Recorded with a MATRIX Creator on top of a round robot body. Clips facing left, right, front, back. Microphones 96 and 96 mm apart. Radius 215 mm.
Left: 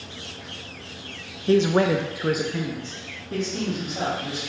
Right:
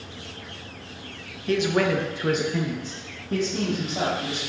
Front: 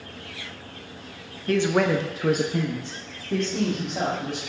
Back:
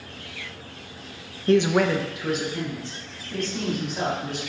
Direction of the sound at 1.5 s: 130° left.